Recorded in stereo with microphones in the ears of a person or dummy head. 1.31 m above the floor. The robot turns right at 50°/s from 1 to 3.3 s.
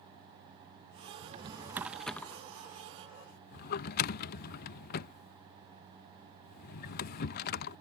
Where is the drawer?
30° right (ahead or behind); by 7.8 s 45° left (ahead or behind).